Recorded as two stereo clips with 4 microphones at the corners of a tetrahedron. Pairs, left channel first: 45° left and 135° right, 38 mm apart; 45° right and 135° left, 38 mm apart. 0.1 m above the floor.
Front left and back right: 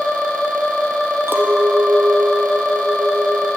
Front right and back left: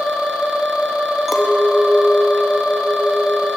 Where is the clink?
145° right, 2.5 m.